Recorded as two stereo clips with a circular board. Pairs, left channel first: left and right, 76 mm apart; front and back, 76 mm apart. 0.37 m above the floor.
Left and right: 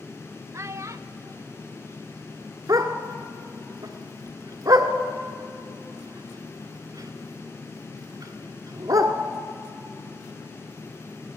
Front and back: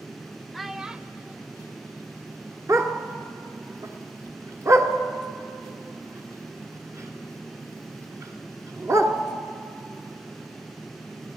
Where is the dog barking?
130° right, 1.6 m.